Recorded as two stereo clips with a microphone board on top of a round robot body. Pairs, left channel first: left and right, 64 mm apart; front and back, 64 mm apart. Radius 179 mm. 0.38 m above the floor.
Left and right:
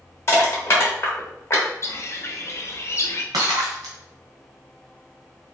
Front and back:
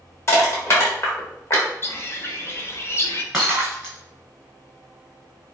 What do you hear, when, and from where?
0.3 s crushing: 40° left, 1.6 m
1.8 s a bird: 50° left, 0.6 m
3.3 s breaking glass: 95° right, 0.7 m